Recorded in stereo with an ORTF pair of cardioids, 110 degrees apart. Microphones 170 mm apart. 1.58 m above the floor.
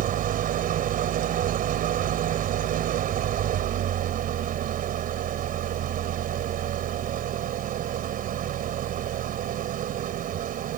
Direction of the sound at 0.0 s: 65° right.